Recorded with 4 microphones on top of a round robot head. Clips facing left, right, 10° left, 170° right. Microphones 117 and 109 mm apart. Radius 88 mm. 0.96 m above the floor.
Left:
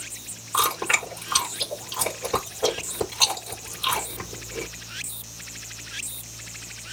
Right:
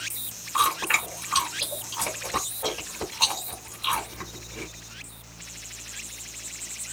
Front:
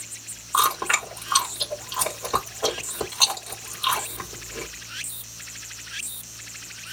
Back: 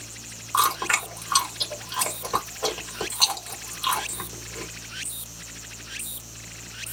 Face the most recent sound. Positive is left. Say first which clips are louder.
# even, front 1 dB
turn(degrees=95)